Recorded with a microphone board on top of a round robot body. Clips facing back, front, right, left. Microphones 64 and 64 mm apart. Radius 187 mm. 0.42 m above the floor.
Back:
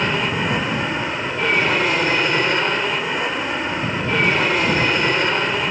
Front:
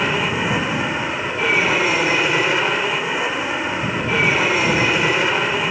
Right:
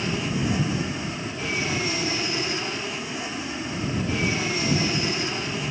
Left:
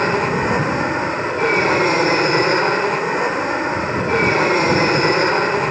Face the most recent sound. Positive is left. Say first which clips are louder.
# front 1 dB, left 9 dB
turn(degrees=85)